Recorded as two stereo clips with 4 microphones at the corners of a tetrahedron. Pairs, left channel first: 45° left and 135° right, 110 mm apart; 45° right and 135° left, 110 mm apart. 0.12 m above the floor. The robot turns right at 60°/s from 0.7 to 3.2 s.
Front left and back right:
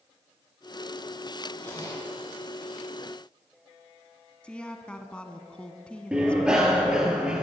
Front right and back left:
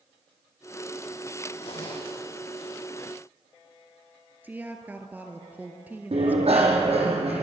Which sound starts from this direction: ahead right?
A zipper, at 1.6 s.